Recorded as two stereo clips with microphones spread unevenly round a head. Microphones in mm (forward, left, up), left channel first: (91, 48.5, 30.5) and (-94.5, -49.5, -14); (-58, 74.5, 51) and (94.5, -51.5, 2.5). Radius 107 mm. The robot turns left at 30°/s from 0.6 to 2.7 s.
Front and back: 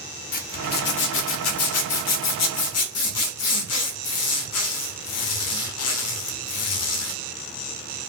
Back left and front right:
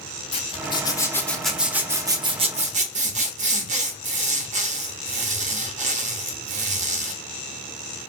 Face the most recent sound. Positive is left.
turn(degrees=15)